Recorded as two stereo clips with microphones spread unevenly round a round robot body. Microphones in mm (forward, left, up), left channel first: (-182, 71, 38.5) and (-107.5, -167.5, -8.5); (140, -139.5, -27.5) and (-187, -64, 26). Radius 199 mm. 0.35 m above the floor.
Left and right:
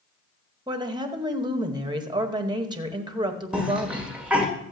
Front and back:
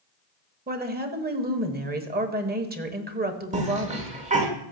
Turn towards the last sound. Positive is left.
turn(degrees=-130)